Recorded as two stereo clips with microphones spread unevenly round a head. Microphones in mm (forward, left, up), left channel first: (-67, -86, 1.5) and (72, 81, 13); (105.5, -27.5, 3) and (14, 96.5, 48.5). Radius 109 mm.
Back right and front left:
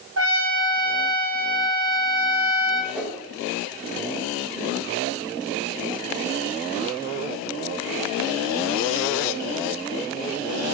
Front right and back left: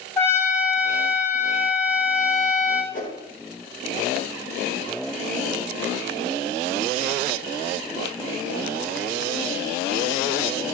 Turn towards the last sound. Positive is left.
turn(degrees=-35)